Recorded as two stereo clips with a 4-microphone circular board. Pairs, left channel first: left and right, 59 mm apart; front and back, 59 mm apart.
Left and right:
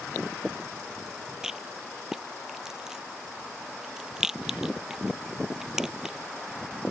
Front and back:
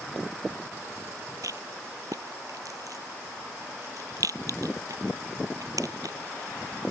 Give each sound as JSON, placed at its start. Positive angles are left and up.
{"t": 1.4, "sound": "a rattle", "azimuth_deg": -170}